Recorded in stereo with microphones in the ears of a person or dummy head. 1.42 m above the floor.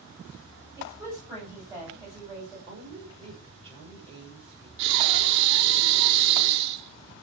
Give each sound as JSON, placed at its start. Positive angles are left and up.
{"t": 0.8, "sound": "a woman speaking", "side_deg": -10, "distance_m": 9.0}
{"t": 2.7, "sound": "a woman speaking", "side_deg": -25, "distance_m": 7.5}
{"t": 4.8, "sound": "breathing", "side_deg": -65, "distance_m": 2.0}